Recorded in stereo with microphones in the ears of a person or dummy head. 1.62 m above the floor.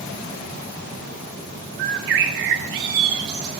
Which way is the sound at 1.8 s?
35° right (ahead or behind).